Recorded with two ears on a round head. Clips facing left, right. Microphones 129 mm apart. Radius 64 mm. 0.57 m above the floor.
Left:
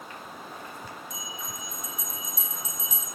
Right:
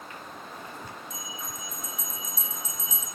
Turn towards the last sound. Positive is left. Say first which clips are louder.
# even
turn(degrees=10)  # may be behind; listen again after turning